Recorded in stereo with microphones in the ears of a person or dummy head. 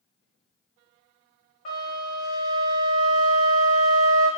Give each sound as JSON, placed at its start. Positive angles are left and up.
{"t": 1.6, "sound": "a flute", "side_deg": 50, "distance_m": 1.3}